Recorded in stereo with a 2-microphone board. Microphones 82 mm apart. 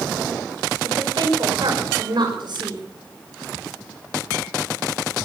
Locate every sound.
0.8 s a woman speaking: 65° right (ahead or behind), 5 m